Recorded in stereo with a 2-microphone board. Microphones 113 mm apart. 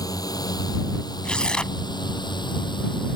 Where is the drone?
35° left (ahead or behind); by 3.2 s 45° left (ahead or behind).